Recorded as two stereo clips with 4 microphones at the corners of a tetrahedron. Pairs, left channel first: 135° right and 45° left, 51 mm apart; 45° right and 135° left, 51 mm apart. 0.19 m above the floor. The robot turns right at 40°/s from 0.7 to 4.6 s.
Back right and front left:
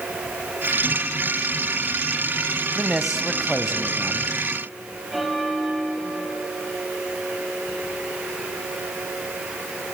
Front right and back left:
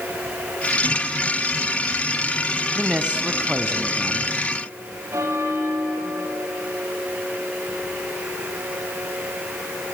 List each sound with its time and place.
2.8 s a man speaking: 115° left, 1.0 m; by 4.3 s 175° left, 1.0 m
5.1 s a bell: 135° left, 3 m